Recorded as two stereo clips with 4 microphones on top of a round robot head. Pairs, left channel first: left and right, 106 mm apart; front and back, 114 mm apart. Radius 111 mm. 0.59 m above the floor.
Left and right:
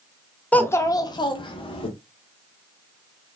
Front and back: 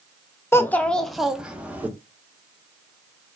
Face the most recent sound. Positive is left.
turn(degrees=105)